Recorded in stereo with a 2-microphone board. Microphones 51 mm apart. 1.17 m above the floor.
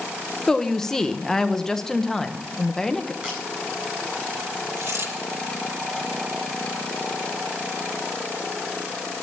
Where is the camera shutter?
15° right (ahead or behind), 8 m.